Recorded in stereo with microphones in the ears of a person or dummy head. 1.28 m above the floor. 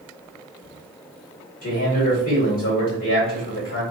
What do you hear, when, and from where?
1.6 s a man speaking: 40° left (ahead or behind), 2.0 m